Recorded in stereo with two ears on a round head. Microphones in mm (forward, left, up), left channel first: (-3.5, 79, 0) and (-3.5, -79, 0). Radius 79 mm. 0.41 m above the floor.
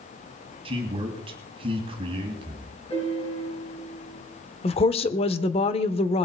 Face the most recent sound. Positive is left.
turn(degrees=35)  # may be behind; listen again after turning